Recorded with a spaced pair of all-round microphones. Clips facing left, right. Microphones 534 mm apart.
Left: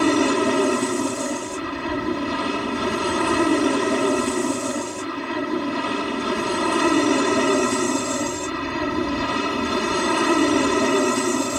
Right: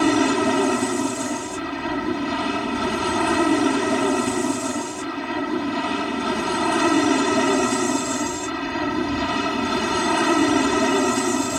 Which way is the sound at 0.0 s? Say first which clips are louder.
Even; 10° right (ahead or behind).